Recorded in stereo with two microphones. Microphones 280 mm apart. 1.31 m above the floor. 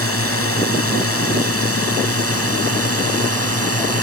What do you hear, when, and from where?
0.0 s a drone: 55° left (ahead or behind)